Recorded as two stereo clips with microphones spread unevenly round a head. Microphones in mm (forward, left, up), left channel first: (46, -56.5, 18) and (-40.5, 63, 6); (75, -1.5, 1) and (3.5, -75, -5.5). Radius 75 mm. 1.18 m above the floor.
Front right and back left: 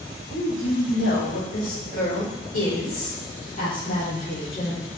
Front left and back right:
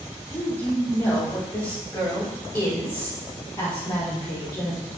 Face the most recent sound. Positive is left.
turn(degrees=0)